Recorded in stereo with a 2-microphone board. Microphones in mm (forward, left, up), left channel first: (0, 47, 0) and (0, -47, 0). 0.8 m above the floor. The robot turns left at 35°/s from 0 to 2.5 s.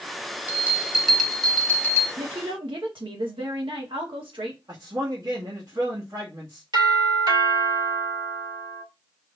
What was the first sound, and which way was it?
A bell, 155° right.